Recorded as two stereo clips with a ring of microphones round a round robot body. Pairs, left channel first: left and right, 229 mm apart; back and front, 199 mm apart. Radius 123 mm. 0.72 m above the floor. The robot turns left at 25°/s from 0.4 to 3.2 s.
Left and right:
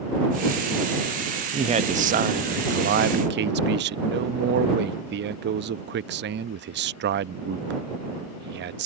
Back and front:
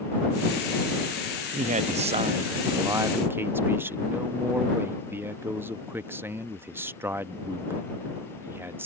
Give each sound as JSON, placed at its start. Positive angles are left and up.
{"t": 1.5, "sound": "a man speaking", "azimuth_deg": -35}